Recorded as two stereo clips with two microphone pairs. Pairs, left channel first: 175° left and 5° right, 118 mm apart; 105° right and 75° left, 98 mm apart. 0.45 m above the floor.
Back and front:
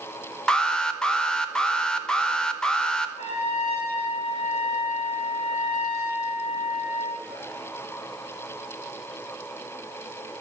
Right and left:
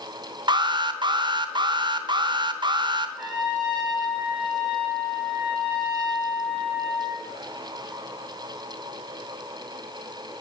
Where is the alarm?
90° left, 0.9 m.